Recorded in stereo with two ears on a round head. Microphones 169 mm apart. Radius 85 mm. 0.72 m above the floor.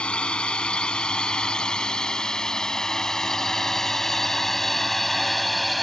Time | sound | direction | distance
0.0 | a drone | 5° left (ahead or behind) | ?